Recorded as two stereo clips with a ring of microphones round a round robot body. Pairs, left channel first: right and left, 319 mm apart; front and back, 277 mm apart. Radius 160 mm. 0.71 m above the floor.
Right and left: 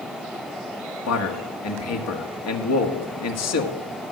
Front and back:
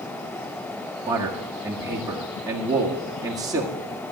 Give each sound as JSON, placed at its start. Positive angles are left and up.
{"t": 1.1, "sound": "a man speaking", "azimuth_deg": -105, "distance_m": 1.7}